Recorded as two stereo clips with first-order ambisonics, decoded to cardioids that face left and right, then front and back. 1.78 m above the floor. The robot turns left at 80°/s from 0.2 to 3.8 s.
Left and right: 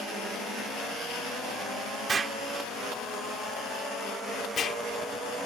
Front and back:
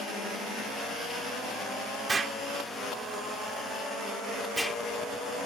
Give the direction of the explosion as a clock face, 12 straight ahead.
4 o'clock.